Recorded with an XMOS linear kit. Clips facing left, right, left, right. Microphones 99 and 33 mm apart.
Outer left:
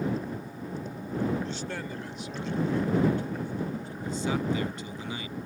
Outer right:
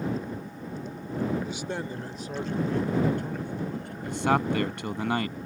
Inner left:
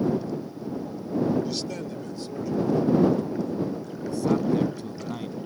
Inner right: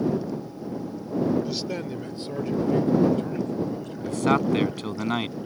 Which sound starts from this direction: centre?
A man speaking, at 1.4 s.